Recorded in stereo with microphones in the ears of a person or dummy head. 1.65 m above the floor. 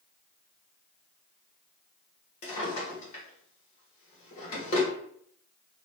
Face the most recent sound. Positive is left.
turn(degrees=45)  # may be behind; listen again after turning